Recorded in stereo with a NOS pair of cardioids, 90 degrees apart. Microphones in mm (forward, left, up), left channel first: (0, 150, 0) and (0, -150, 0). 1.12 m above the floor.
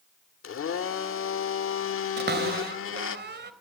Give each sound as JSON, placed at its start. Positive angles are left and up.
{"t": 0.4, "sound": "a blender", "azimuth_deg": 45, "distance_m": 1.6}
{"t": 2.2, "sound": "a cupboard door", "azimuth_deg": -35, "distance_m": 3.0}